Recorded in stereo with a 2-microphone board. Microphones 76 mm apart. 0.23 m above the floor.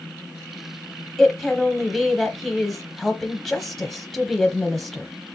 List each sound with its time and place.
1.2 s a woman speaking: centre (ahead or behind), 1.0 m